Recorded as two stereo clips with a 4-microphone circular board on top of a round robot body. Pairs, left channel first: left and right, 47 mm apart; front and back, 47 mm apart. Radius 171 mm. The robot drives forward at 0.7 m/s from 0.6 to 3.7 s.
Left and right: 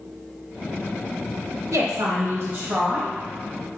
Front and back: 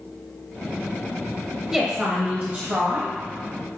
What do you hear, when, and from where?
1.7 s a woman speaking: 100° right, 0.8 m; by 3.1 s 145° right, 1.4 m